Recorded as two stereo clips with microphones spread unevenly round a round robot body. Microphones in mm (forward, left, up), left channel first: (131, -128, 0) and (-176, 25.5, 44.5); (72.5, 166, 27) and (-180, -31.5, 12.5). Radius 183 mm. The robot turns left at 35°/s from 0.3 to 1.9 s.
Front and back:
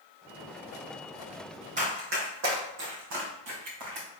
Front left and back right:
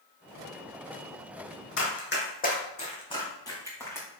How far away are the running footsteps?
About 2 m.